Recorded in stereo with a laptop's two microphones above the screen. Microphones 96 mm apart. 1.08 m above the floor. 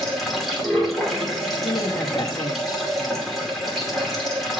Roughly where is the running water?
Centre.